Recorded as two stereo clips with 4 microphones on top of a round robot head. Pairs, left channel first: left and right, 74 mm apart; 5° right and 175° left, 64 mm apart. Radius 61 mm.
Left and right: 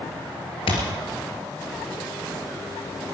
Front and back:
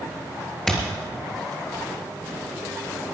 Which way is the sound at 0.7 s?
80° left.